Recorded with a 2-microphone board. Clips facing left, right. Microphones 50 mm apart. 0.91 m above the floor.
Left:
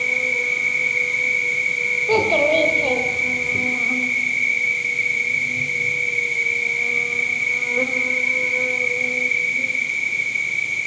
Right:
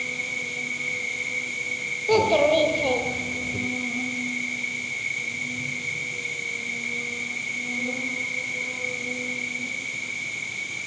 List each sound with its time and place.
0.0 s an insect: 75° left (ahead or behind), 4 m
2.1 s a child speaking: 5° left (ahead or behind), 2.5 m